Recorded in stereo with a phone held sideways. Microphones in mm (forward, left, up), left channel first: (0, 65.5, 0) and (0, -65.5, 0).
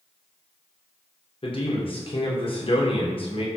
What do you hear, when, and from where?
1.4 s a man speaking: 45° left (ahead or behind), 0.9 m